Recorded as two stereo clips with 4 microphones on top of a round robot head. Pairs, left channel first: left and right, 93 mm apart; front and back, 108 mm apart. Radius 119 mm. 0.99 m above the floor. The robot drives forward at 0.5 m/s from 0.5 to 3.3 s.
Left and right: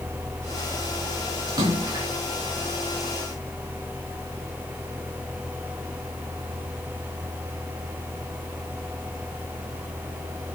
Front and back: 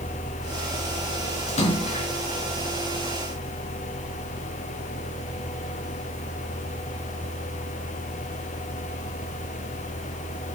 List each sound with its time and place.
1.5 s a splash: 35° right, 4.5 m